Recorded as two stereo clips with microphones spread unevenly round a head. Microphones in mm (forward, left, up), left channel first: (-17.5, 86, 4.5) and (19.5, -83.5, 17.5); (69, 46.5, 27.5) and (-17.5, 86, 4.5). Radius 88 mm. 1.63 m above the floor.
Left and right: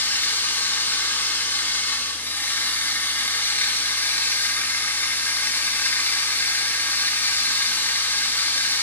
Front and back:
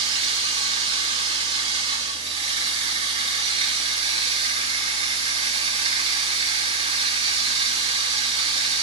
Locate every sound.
0.0 s running water: straight behind, 1.3 m